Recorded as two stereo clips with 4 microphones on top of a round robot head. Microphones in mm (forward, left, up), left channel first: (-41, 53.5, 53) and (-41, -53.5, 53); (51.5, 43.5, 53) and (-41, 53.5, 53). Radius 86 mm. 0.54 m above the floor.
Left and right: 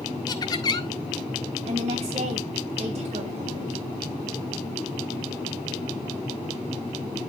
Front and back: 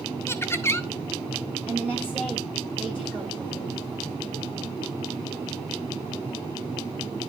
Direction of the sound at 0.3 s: 50° left.